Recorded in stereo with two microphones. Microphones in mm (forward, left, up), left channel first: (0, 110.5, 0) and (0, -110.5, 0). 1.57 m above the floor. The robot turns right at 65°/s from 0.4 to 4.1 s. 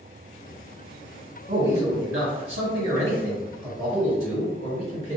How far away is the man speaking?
About 1.1 m.